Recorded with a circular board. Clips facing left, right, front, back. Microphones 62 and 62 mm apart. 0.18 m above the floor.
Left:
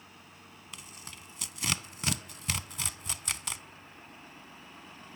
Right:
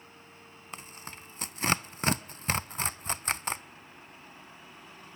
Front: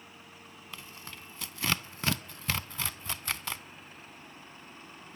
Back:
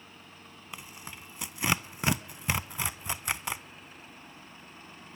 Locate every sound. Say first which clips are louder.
0.7 s tearing paper: right 6 dB, back 2 dB; 115° right, 0.6 m